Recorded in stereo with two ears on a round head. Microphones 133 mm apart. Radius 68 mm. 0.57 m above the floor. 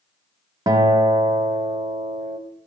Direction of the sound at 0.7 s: 25° right (ahead or behind).